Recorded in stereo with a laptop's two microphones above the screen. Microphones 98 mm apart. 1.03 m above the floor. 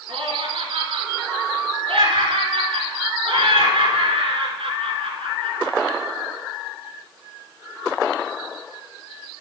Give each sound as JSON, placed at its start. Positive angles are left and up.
{"t": 0.1, "sound": "laughter", "side_deg": -75, "distance_m": 3.0}